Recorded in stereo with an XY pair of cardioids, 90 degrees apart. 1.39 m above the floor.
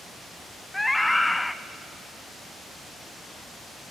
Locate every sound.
0.7 s a scream: 10° left, 0.7 m